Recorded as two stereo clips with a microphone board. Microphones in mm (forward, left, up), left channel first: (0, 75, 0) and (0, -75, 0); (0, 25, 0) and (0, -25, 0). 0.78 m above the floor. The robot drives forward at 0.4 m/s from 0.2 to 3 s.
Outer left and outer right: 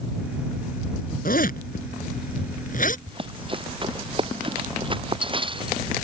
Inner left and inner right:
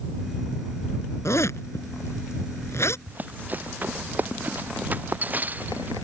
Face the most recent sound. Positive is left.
turn(degrees=-35)  # may be behind; listen again after turning